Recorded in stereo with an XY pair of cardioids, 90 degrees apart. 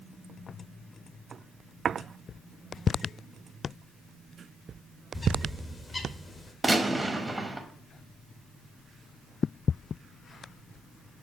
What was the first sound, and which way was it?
A bird, 35° left.